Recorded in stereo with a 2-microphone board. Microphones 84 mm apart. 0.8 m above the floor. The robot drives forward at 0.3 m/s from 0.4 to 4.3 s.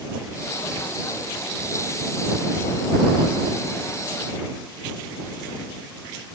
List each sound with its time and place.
Only background noise.